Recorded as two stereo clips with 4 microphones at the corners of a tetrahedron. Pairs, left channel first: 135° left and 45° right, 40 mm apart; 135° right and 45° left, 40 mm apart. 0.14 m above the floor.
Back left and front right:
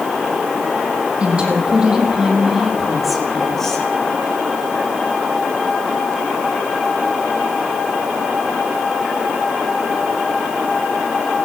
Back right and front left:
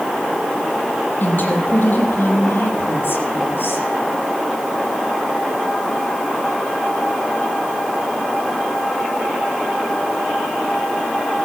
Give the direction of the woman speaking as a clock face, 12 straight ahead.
3 o'clock.